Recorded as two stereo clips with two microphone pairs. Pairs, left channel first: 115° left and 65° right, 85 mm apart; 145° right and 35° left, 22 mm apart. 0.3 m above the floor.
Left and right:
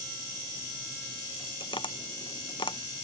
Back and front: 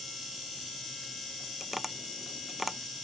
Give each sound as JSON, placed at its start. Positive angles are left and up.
{"t": 1.6, "sound": "tapping", "azimuth_deg": 110}